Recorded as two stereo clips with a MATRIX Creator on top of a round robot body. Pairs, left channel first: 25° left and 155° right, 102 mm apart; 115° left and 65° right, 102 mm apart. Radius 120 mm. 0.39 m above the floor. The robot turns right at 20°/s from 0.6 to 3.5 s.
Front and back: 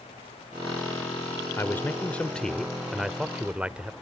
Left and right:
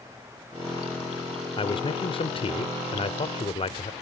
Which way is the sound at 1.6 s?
85° left.